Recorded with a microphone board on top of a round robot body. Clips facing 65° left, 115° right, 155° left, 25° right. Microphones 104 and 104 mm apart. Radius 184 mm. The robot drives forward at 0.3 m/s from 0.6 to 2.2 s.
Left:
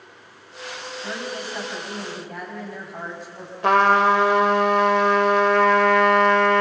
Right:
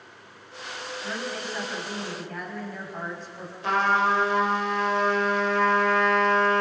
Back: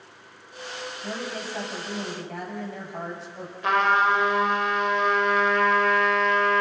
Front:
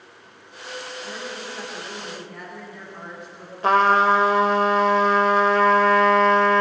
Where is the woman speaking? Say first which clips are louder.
Left 2 dB, back 1 dB; 145° left, 7 m.